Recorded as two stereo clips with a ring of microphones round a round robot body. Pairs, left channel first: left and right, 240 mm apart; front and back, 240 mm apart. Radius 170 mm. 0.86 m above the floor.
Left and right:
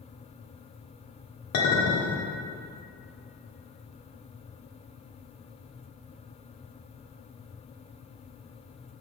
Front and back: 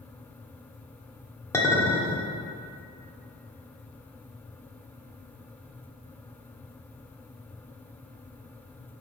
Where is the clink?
80° left, 1.4 m.